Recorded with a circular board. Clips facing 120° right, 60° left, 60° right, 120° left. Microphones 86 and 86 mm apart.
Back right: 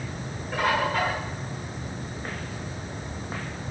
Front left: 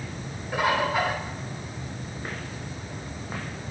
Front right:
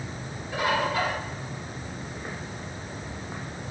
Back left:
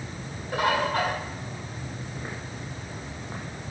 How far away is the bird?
About 2.5 m.